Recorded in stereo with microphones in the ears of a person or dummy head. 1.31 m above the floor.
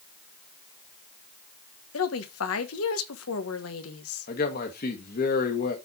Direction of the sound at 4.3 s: 45° left (ahead or behind).